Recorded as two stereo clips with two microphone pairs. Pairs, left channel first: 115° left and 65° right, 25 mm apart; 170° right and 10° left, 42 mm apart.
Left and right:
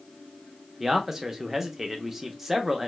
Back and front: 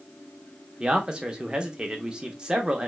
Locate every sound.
0.8 s a man speaking: 10° right, 0.7 m